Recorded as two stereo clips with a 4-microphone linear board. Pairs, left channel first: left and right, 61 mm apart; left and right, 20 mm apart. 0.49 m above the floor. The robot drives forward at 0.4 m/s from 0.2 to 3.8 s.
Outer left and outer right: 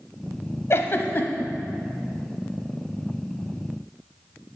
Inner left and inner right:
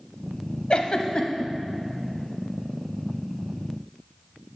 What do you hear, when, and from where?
0.7 s a giggle: 45° left (ahead or behind), 0.5 m; by 1.5 s 30° left (ahead or behind), 0.8 m